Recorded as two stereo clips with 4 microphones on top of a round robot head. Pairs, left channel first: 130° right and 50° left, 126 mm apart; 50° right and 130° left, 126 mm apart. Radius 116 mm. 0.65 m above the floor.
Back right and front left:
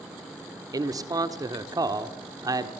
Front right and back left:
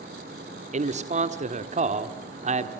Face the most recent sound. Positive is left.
turn(degrees=110)